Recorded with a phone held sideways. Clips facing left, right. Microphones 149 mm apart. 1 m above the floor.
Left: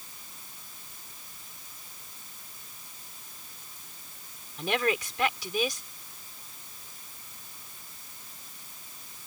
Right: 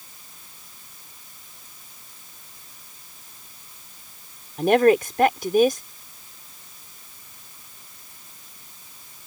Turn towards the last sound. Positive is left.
turn(degrees=-50)  # may be behind; listen again after turning